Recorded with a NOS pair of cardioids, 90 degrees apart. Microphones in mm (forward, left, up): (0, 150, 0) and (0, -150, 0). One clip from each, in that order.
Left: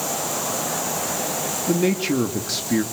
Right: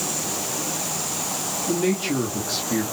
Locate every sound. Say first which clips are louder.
1.7 s a man speaking: left 2 dB; 25° left, 2.5 m